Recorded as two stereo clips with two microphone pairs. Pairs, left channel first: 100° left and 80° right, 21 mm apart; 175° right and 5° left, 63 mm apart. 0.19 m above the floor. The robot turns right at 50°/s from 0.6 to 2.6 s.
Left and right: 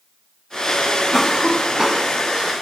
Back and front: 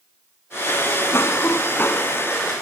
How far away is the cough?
About 1.9 m.